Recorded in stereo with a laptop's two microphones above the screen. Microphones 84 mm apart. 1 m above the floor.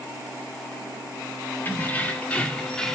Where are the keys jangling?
25° left (ahead or behind), 2 m; by 3.0 s 5° left (ahead or behind), 1.7 m.